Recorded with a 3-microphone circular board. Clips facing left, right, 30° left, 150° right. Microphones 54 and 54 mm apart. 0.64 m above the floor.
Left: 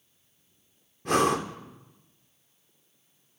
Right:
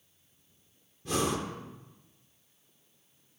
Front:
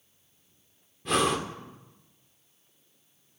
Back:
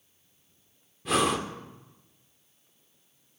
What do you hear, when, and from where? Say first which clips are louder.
1.1 s breathing: left 7 dB, even; 120° left, 0.9 m